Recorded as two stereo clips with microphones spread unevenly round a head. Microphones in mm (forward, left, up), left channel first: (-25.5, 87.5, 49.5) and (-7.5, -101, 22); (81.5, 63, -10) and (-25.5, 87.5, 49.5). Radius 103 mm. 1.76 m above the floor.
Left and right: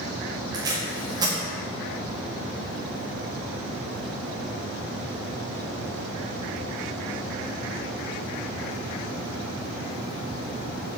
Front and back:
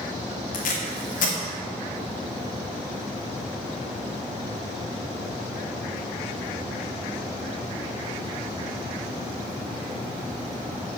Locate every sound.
0.5 s tape being pulled: 10° right, 1.5 m